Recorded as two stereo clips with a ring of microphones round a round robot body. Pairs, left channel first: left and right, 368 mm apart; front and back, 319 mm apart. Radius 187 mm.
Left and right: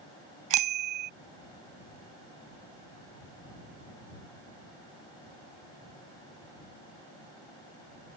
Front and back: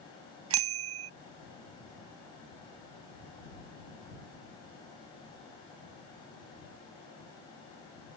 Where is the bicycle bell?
130° right.